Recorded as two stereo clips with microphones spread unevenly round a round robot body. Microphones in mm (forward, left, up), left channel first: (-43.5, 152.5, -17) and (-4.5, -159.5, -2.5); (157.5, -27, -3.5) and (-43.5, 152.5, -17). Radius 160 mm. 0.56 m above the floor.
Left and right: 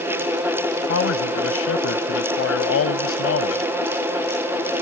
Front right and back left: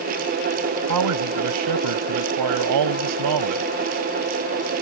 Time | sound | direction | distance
0.9 | a man speaking | 145° left | ?